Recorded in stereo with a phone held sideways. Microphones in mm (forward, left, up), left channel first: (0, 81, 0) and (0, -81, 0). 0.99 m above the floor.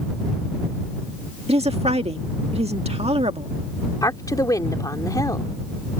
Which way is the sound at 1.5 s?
40° right (ahead or behind).